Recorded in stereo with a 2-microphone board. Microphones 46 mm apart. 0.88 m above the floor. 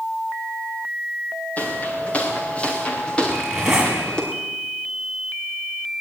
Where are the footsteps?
30° left (ahead or behind), 5 m; by 4.2 s 15° left (ahead or behind), 6.5 m.